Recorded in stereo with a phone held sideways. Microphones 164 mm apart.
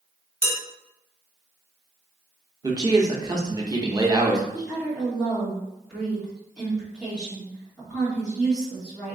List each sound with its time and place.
0.4 s dishes clattering: 55° right (ahead or behind), 1.7 m
2.6 s a man speaking: 25° right (ahead or behind), 0.7 m
4.5 s a woman speaking: 5° right (ahead or behind), 1.9 m